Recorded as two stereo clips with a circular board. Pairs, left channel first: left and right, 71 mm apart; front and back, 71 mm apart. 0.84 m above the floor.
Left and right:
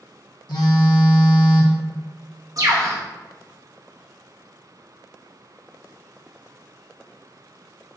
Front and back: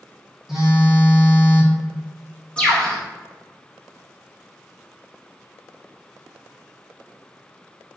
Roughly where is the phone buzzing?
Left.